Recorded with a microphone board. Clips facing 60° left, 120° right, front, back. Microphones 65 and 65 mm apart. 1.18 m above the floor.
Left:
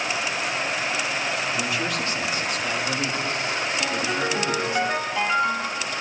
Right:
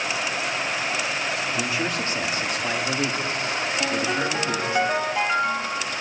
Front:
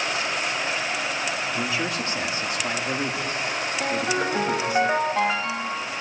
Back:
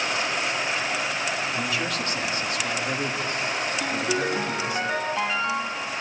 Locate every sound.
1.6 s a man speaking: 65° right, 2 m
3.8 s a ringtone: 45° right, 2.5 m